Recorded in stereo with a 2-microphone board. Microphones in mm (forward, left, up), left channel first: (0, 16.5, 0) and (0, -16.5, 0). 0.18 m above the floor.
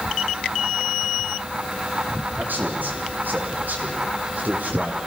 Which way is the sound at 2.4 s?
70° right (ahead or behind).